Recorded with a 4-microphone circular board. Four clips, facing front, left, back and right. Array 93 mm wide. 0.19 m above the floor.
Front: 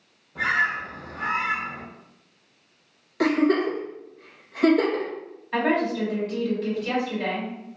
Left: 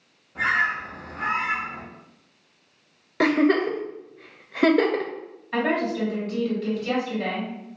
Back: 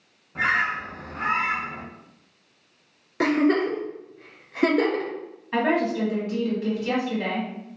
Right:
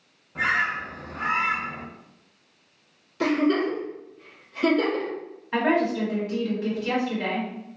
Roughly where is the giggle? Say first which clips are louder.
Left 3 dB, even; left.